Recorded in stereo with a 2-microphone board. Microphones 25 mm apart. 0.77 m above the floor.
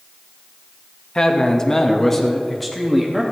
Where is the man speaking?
30° left (ahead or behind), 0.9 m; by 3.2 s centre (ahead or behind), 1.3 m.